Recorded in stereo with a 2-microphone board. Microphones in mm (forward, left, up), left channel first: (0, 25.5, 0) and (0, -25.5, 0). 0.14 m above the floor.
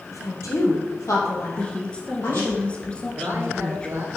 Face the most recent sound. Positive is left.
turn(degrees=-50)  # may be behind; listen again after turning